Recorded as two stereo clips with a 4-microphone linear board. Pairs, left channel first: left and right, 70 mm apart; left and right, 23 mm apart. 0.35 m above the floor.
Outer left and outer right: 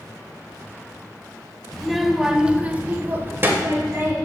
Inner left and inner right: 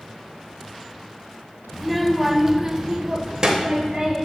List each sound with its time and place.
1.7 s a child speaking: 5° left (ahead or behind), 0.7 m; by 4.2 s 35° right (ahead or behind), 1.0 m